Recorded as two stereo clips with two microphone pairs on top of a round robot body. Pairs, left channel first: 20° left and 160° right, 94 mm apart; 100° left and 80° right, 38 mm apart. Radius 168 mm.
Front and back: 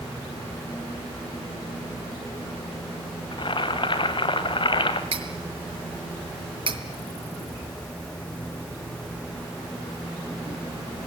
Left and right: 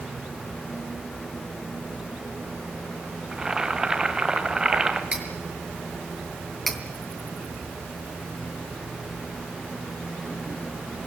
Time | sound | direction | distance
3.3 | boiling | 10° right | 2.5 m
5.1 | cutlery clinking | 155° right | 5 m
6.7 | cutlery clinking | 175° right | 3 m